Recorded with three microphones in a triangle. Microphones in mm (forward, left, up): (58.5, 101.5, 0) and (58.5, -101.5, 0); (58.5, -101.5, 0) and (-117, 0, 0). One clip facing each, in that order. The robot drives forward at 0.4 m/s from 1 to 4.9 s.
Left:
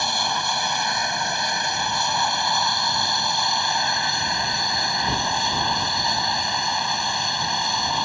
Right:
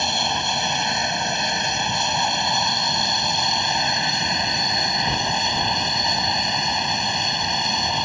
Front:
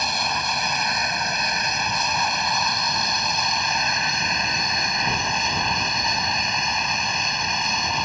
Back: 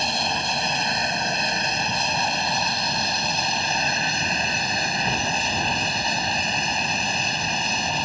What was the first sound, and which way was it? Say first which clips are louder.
An aircraft: right 2 dB, back 1 dB; 155° right.